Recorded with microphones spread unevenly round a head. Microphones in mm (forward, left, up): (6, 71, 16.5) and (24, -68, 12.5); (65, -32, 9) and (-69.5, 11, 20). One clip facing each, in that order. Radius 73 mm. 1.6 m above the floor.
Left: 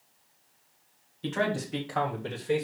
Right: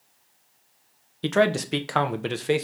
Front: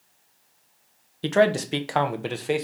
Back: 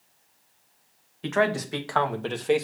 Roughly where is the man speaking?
Ahead right.